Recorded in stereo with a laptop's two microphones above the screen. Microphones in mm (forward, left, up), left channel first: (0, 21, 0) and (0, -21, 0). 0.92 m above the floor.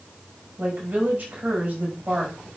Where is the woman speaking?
35° right (ahead or behind), 5.5 m.